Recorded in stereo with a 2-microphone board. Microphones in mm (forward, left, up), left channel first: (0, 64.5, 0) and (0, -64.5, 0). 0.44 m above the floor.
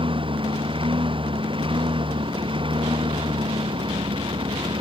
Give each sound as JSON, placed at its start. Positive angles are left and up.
{"t": 0.0, "sound": "a lawn mower", "side_deg": -45}